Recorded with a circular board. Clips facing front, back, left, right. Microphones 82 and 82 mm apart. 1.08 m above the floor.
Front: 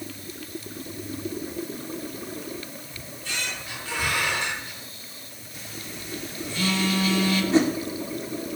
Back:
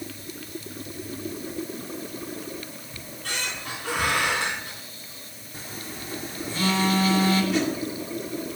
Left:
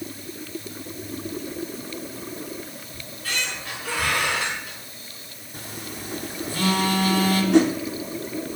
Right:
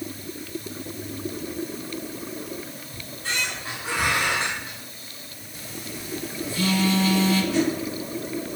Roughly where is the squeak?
Behind right.